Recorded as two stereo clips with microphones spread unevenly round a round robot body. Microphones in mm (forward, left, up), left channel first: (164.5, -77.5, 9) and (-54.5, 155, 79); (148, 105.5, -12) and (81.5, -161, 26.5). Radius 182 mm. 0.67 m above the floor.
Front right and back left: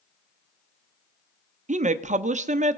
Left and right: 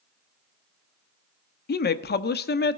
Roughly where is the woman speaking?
Ahead left.